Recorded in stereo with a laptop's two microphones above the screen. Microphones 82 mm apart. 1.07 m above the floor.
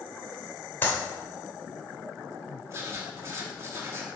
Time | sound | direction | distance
0.8 | a clap | 25° left (ahead or behind) | 3.5 m
2.7 | writing | 35° right (ahead or behind) | 2.5 m